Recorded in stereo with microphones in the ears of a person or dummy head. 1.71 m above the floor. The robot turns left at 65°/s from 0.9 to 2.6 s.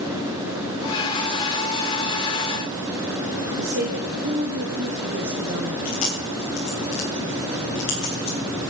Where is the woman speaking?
70° right (ahead or behind), 1.4 m.